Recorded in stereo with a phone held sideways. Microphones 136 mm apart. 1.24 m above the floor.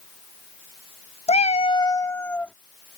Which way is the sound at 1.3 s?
50° left (ahead or behind).